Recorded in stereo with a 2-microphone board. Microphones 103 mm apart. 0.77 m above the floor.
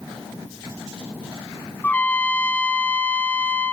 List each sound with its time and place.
1.8 s a trumpet: 15° left (ahead or behind), 1.2 m